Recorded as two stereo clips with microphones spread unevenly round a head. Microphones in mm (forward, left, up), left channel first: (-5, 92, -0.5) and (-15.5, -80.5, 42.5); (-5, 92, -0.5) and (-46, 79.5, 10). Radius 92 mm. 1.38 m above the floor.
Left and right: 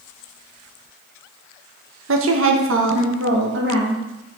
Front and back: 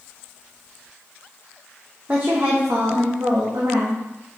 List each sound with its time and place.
2.1 s a woman speaking: 85° right, 1.0 m; by 4.4 s 120° right, 2 m